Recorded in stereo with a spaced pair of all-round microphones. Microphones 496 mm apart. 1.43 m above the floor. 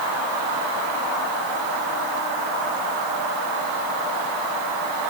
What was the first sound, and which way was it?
Only background noise.